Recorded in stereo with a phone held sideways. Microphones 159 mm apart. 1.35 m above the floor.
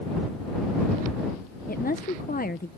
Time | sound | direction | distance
1.7 | a woman speaking | 65° left (ahead or behind) | ?